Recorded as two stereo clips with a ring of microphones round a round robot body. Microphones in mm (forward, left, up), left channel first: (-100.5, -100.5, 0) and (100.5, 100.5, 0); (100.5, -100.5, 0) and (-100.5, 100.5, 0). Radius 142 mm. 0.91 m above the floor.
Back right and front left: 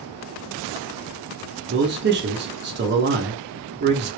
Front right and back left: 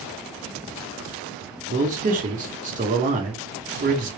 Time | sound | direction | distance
1.7 | a man speaking | 80° left | 1.0 m